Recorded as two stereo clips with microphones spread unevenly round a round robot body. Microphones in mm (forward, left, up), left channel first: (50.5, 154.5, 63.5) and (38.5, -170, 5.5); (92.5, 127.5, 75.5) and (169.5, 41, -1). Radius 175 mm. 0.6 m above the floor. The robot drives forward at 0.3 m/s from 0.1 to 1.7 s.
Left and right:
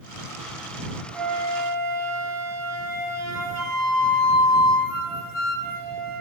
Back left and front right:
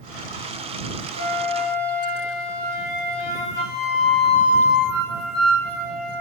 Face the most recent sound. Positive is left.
turn(degrees=-150)